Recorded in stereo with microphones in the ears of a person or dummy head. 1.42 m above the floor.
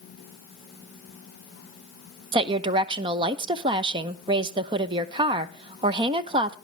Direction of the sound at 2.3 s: 30° right (ahead or behind).